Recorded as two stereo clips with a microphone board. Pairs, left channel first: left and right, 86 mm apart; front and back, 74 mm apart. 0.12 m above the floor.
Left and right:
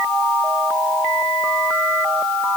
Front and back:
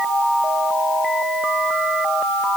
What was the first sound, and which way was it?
Only background noise.